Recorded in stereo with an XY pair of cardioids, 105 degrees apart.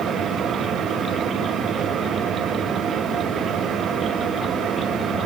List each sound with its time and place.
0.0 s a fan: 65° right, 9 m